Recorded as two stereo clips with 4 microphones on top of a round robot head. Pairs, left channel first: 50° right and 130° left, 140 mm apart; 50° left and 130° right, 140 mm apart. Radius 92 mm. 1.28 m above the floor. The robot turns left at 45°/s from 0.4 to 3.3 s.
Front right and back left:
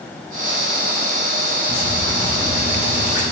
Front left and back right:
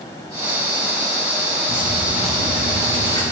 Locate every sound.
1.7 s dripping: 100° right, 4 m; by 3.2 s 170° right, 4 m